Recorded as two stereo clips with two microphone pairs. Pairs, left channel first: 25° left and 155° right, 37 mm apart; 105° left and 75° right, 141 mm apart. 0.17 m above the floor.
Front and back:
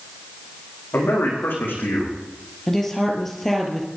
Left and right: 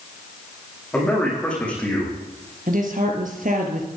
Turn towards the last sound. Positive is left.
turn(degrees=-55)